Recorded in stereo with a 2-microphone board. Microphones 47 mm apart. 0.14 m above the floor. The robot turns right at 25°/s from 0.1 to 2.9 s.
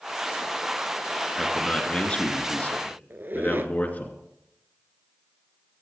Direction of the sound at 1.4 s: 25° left.